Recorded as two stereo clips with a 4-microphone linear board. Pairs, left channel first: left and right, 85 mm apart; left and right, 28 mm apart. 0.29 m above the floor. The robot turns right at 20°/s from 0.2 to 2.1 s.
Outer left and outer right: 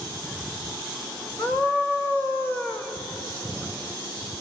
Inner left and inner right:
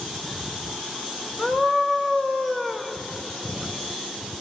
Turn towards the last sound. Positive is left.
turn(degrees=25)  # may be behind; listen again after turning